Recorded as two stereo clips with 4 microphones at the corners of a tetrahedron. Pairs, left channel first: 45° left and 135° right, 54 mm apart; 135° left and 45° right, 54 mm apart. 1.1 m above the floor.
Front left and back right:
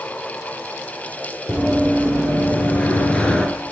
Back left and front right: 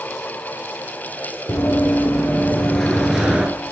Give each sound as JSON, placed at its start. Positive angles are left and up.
{"t": 1.5, "sound": "running footsteps", "azimuth_deg": 105, "distance_m": 2.0}